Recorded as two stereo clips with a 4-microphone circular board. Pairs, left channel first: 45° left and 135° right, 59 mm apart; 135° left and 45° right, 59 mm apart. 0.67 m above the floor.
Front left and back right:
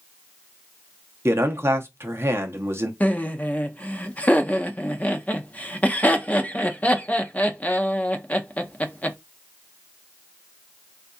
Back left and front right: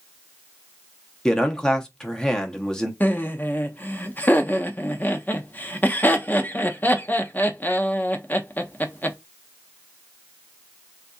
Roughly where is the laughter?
Left.